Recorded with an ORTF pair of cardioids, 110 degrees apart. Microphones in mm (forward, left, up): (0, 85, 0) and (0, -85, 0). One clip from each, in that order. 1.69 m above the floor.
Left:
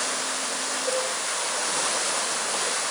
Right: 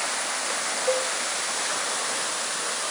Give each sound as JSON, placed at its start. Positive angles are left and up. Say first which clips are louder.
{"t": 0.9, "sound": "a cowbell", "louder": "right 3 dB", "azimuth_deg": 10, "distance_m": 2.0}